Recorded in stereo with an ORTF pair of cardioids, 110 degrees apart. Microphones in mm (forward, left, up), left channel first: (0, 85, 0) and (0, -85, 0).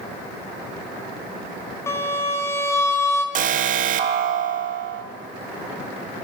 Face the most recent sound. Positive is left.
turn(degrees=-50)